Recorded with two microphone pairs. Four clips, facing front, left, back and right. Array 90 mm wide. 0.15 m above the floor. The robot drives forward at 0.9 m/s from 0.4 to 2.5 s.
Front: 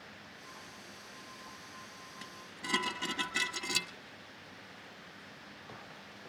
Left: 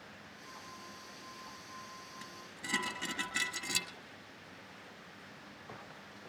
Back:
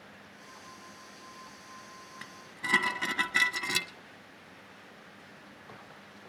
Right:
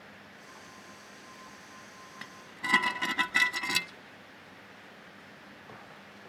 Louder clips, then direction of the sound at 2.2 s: Right 13 dB, back 5 dB; 125° right.